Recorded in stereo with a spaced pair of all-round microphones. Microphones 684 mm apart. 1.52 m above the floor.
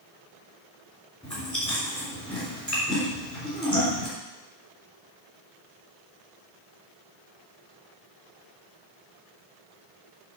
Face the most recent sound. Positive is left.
turn(degrees=10)  # may be behind; listen again after turning